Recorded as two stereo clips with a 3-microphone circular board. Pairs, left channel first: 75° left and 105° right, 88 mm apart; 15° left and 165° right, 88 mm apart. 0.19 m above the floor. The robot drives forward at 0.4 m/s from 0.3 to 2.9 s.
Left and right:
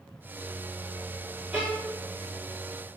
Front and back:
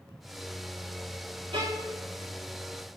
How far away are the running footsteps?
No running footsteps in this recording.